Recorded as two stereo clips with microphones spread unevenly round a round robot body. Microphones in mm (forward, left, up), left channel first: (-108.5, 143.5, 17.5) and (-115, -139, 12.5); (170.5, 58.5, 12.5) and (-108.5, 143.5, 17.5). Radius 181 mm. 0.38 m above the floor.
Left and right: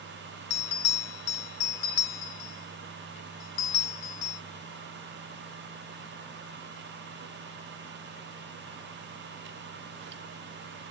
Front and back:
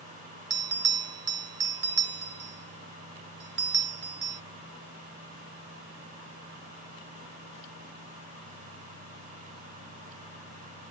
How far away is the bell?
About 1.1 m.